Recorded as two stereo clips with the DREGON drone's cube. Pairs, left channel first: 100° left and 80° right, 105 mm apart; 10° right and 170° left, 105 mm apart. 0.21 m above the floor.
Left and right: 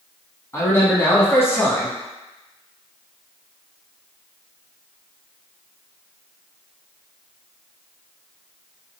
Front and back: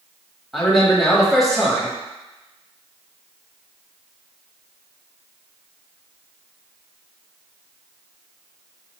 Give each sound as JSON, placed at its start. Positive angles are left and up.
{"t": 0.5, "sound": "a man speaking", "azimuth_deg": 80, "distance_m": 1.0}